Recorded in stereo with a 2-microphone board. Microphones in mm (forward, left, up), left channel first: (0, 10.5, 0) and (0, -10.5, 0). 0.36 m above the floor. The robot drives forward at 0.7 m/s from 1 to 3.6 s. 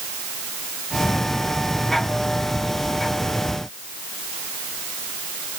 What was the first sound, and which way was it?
Only background noise.